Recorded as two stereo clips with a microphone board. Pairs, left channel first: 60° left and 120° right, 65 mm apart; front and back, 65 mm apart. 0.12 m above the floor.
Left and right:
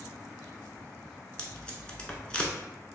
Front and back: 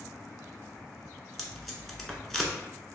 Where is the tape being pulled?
75° left, 0.7 m.